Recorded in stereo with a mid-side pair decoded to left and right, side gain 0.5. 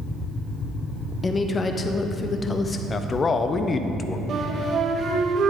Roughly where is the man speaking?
Ahead left.